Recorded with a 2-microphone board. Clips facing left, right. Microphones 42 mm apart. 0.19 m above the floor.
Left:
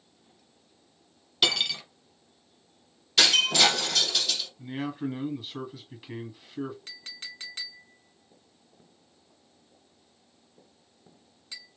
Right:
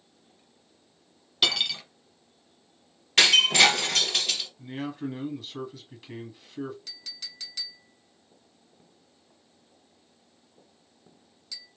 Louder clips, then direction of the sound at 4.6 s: Left 1 dB; 10° left (ahead or behind).